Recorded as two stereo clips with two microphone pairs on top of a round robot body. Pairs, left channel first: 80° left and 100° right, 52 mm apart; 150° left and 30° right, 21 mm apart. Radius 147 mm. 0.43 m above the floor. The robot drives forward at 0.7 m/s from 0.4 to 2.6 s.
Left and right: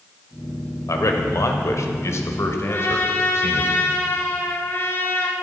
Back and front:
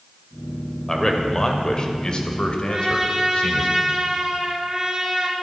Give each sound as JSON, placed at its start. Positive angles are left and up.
{"t": 0.9, "sound": "a man speaking", "azimuth_deg": 80, "distance_m": 2.0}
{"t": 2.7, "sound": "a trumpet", "azimuth_deg": 30, "distance_m": 1.6}